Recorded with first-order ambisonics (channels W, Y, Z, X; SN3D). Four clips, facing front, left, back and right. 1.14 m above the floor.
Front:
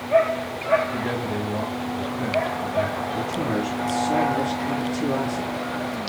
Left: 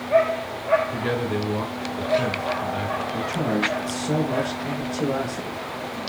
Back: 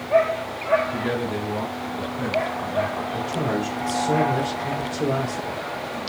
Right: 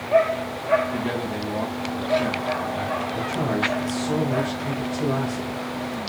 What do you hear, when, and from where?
0.9 s a man speaking: 105° left, 3 m
3.1 s a man speaking: 150° left, 3 m